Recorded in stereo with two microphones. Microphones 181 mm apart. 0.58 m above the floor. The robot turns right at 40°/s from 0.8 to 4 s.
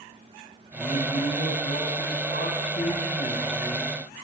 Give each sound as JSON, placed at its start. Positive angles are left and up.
{"t": 0.7, "sound": "a man speaking", "azimuth_deg": 35, "distance_m": 4.5}